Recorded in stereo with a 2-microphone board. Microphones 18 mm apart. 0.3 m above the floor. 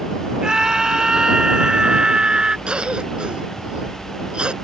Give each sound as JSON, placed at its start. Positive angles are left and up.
{"t": 0.4, "sound": "a scream", "side_deg": -45}
{"t": 2.7, "sound": "a cough", "side_deg": -60}